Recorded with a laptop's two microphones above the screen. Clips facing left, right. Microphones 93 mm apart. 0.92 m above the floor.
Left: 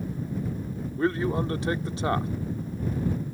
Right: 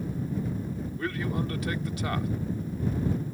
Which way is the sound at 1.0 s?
30° left (ahead or behind).